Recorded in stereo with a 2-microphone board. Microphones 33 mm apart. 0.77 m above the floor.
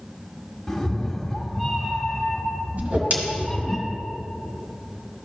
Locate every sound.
0.7 s a cat meowing: 5° left (ahead or behind), 1.1 m
2.8 s a whoosh: 50° right (ahead or behind), 1.9 m